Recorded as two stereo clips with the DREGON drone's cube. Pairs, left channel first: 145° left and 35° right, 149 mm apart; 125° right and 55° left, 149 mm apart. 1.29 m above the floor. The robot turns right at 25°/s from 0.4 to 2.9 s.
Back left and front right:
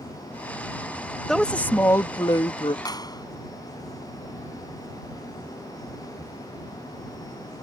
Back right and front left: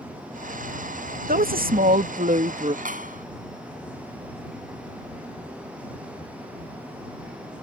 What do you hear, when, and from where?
1.3 s a woman speaking: 60° left; by 2.8 s 95° left
2.9 s a clap: 80° left